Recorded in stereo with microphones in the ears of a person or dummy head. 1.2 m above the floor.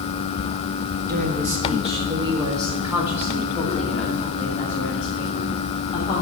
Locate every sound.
1.1 s a woman speaking: 50° right (ahead or behind), 1.4 m; by 6.2 s 20° left (ahead or behind), 3 m